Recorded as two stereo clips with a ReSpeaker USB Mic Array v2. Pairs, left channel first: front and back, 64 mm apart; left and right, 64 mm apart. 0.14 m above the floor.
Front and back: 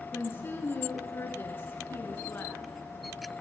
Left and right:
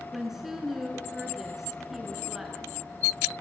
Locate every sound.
0.1 s a woman speaking: 10° right, 1.4 m